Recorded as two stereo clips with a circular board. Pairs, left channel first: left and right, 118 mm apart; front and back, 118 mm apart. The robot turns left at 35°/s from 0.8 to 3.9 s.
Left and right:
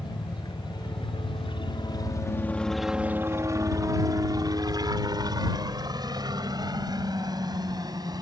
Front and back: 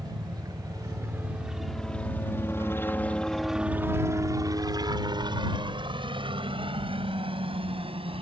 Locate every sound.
0.0 s a helicopter: 130° left; by 8.2 s 145° right